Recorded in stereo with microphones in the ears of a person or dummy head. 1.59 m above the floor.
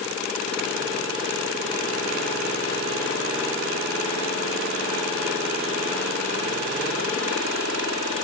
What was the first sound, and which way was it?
Only background noise.